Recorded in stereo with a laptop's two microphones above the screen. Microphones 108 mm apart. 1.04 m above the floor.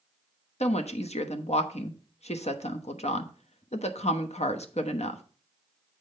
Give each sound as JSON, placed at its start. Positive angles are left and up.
{"t": 0.6, "sound": "a woman speaking", "side_deg": 85, "distance_m": 1.0}